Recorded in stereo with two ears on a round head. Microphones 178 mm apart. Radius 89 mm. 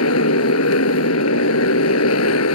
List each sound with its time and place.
0.0 s a motorcycle: 85° left